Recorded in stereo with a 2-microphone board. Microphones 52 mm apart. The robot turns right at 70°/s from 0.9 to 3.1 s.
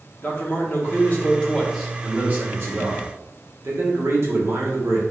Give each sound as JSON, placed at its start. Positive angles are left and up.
{"t": 0.2, "sound": "a man speaking", "azimuth_deg": 125, "distance_m": 1.1}